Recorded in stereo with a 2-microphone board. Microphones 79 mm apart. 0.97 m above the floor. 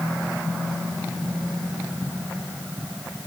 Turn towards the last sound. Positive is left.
No sound to turn to.